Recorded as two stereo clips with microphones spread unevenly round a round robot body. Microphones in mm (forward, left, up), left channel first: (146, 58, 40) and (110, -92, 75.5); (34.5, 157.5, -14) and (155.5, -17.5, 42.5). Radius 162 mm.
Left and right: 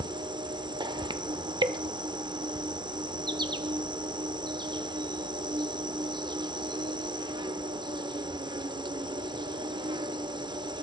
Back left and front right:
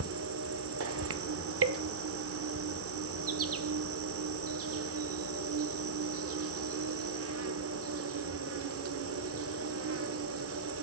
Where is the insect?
40° right, 0.8 m.